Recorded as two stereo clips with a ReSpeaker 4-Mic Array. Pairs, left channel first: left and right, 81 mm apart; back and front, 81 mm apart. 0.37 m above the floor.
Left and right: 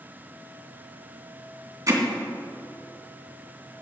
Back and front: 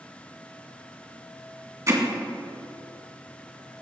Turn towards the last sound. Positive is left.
turn(degrees=-45)